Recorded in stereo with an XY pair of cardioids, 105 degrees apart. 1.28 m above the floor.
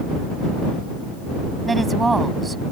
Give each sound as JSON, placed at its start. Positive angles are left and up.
{"t": 1.7, "sound": "a woman speaking", "azimuth_deg": -25}